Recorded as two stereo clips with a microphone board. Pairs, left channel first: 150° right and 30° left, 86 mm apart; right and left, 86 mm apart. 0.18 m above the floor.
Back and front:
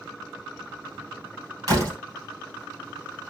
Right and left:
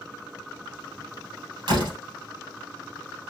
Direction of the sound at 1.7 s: 75° left.